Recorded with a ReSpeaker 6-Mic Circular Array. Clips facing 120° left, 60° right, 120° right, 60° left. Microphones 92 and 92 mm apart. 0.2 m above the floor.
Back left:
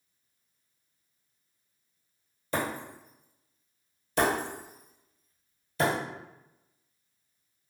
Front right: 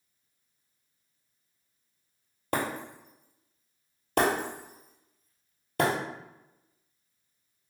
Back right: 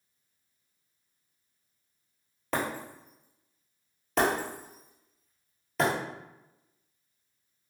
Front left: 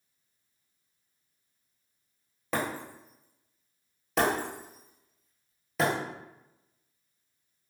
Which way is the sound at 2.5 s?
30° right.